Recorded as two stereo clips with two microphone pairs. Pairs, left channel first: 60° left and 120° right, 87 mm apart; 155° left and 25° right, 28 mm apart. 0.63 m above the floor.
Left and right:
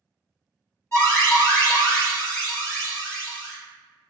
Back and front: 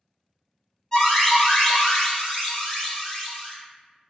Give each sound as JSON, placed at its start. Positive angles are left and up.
{"t": 0.9, "sound": "an alarm", "azimuth_deg": 100, "distance_m": 1.6}